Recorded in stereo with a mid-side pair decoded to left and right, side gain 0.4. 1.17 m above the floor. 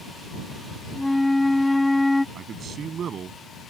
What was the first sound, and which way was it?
A flute, 5° left.